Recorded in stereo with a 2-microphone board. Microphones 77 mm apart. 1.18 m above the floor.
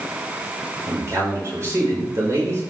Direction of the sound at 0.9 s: 40° right (ahead or behind).